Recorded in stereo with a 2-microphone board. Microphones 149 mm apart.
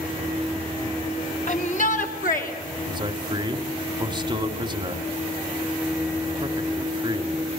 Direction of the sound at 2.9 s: 30° right (ahead or behind).